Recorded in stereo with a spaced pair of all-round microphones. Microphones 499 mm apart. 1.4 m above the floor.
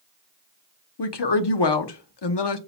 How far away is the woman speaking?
About 0.6 m.